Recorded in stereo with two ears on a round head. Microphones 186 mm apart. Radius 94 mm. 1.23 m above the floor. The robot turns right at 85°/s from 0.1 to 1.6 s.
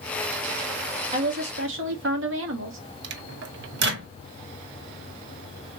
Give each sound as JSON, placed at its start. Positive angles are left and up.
{"t": 1.1, "sound": "a woman speaking", "azimuth_deg": -155, "distance_m": 2.0}
{"t": 3.0, "sound": "a microwave", "side_deg": -50, "distance_m": 1.0}